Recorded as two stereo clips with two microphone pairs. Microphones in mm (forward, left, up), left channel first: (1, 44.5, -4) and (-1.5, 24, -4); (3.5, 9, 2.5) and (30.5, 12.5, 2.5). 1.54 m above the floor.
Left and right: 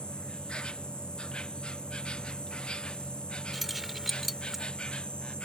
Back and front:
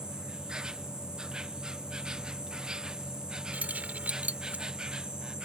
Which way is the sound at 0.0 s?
65° left.